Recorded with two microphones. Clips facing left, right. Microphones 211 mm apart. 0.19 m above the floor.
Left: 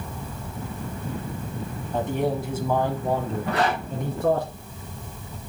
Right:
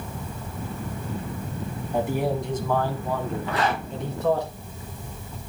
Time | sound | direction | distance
1.9 | a man speaking | 15° right (ahead or behind) | 1.4 m
3.5 | a zipper | 75° left (ahead or behind) | 5 m